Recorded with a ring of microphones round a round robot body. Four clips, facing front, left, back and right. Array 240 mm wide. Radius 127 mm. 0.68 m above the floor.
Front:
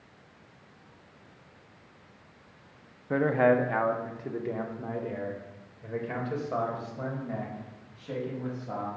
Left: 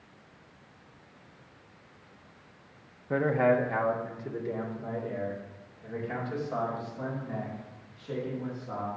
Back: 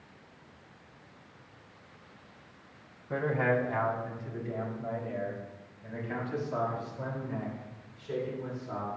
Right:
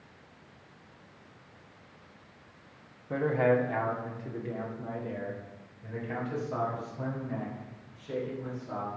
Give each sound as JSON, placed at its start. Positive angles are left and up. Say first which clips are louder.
{"t": 3.1, "sound": "a man speaking", "louder": "left 1 dB, front 6 dB", "azimuth_deg": 25, "distance_m": 1.1}